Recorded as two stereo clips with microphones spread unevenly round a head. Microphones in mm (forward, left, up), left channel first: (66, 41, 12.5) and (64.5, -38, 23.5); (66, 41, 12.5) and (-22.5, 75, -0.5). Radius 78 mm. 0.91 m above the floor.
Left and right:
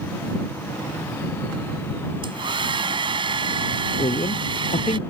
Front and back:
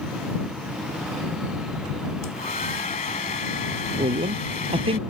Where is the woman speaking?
130° left.